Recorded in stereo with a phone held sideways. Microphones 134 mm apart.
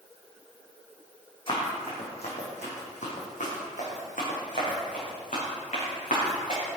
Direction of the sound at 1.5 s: 40° left (ahead or behind).